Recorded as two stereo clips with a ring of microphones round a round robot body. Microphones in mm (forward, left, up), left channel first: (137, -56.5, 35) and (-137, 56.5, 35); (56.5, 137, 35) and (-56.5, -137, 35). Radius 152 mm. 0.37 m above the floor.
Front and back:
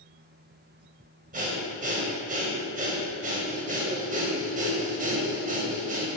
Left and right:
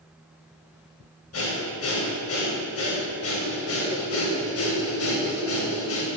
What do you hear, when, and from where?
1.3 s breathing: 100° left, 2.5 m